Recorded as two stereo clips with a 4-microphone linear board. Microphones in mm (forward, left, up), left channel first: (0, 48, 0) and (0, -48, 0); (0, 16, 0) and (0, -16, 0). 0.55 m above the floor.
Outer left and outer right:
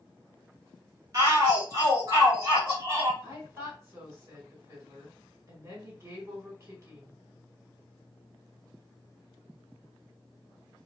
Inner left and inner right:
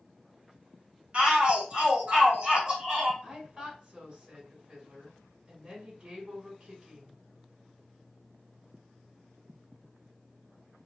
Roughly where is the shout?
Right.